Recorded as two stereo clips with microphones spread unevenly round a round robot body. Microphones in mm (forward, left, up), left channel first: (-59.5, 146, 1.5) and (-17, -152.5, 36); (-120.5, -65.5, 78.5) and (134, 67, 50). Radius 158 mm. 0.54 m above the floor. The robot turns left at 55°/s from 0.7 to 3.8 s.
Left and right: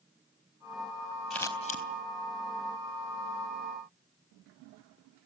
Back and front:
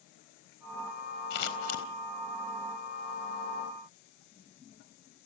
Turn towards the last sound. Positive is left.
turn(degrees=50)